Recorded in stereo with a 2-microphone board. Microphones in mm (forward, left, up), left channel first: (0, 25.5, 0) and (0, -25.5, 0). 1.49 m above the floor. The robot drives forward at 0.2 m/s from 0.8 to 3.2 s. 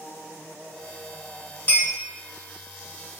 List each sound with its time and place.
1.7 s a clink: 45° left (ahead or behind), 1.4 m